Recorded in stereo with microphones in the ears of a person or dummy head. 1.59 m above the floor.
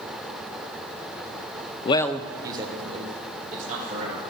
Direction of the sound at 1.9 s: 35° left (ahead or behind).